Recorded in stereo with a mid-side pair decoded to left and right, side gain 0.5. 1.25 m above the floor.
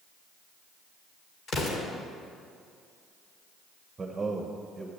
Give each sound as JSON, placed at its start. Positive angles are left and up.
{"t": 1.5, "sound": "an explosion", "azimuth_deg": 55, "distance_m": 2.0}
{"t": 4.0, "sound": "a man speaking", "azimuth_deg": -25, "distance_m": 1.1}